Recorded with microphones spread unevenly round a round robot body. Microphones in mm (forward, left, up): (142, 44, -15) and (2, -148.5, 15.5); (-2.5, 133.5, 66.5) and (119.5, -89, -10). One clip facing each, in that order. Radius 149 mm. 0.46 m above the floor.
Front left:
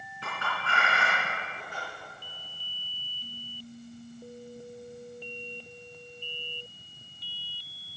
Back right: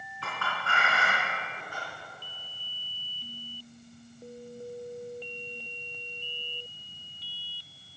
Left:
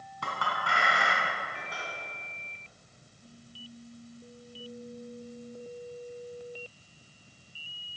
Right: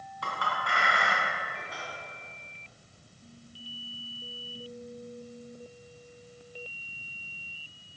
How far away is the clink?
About 3 m.